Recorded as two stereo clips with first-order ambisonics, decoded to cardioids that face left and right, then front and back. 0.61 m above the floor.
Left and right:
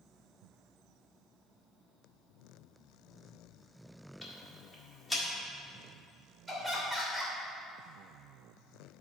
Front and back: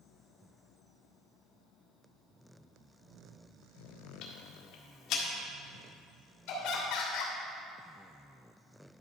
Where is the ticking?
15° left, 1.6 m.